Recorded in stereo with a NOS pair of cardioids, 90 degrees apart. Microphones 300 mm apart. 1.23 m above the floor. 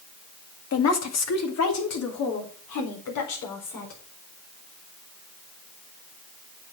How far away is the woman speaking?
About 2 m.